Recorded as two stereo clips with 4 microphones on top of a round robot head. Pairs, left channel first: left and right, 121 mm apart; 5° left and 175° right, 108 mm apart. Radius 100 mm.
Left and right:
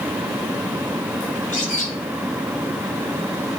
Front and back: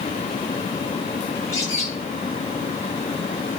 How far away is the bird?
About 6.5 m.